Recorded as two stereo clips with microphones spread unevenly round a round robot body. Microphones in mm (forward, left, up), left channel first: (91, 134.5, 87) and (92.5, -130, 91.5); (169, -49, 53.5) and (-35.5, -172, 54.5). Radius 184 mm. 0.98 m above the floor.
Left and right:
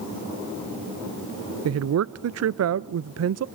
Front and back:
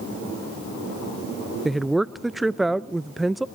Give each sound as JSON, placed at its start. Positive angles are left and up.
{"t": 1.6, "sound": "a woman speaking", "azimuth_deg": -60, "distance_m": 0.5}